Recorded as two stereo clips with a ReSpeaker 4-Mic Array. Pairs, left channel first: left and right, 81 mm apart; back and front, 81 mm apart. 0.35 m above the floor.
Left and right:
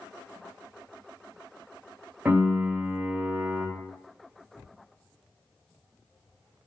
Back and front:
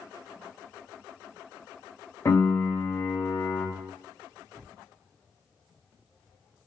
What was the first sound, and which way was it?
A piano, 155° right.